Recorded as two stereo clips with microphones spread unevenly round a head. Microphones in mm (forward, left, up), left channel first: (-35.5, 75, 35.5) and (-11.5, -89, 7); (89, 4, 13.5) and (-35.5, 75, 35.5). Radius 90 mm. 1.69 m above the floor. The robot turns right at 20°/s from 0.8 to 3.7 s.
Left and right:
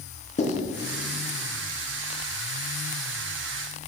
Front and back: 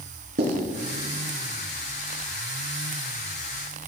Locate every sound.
0.4 s writing: 150° left, 3.5 m